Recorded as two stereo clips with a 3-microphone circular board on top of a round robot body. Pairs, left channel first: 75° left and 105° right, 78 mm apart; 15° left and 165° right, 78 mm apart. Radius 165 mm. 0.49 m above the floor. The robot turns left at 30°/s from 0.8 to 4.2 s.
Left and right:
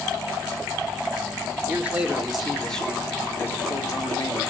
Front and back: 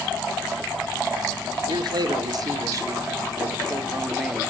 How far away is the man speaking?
About 1.6 m.